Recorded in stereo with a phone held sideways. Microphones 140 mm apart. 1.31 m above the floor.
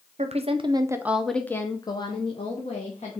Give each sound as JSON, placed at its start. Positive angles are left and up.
{"t": 0.2, "sound": "a woman speaking", "side_deg": -55, "distance_m": 0.7}